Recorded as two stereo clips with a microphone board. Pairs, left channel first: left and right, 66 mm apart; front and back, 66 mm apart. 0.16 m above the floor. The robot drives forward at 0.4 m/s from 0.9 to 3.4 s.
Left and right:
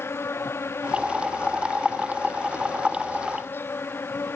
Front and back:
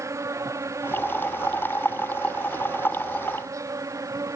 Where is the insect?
140° left; by 4.4 s 145° left.